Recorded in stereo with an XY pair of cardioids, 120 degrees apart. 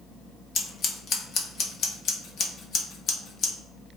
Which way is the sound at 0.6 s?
55° left.